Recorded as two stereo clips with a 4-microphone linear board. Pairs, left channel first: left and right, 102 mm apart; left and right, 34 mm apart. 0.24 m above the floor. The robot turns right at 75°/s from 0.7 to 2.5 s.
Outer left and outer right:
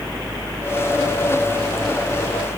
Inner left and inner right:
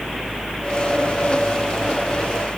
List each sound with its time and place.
Only background noise.